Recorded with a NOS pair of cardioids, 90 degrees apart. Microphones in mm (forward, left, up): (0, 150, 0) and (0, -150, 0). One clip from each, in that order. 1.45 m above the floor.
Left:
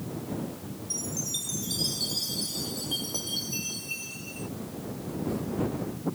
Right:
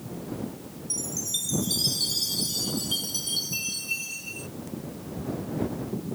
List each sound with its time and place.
0.9 s a chime: 30° right